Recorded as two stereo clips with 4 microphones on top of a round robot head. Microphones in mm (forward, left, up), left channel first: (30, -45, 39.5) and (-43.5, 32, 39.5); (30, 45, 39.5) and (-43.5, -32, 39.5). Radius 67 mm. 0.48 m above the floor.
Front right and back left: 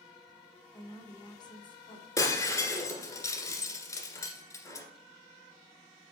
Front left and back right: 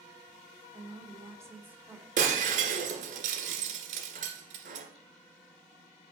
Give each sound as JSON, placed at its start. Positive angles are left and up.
{"t": 0.7, "sound": "a woman speaking", "azimuth_deg": -95, "distance_m": 1.7}
{"t": 2.2, "sound": "breaking glass", "azimuth_deg": -110, "distance_m": 1.6}